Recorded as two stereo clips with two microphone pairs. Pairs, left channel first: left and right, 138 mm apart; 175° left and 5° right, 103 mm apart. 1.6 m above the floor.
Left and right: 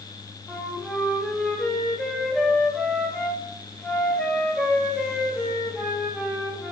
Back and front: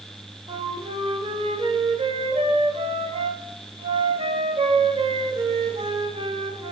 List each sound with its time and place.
0.5 s a flute: 5° left, 0.8 m